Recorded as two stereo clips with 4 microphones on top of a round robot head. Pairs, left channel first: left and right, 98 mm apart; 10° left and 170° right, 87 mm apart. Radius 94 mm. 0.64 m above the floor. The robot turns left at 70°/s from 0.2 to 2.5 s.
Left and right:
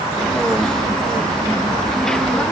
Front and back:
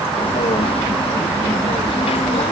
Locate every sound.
Only background noise.